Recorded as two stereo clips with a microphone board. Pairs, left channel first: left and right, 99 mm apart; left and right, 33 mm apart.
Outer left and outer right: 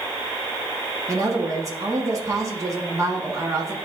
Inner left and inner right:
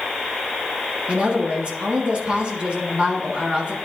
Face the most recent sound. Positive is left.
turn(degrees=-35)  # may be behind; listen again after turning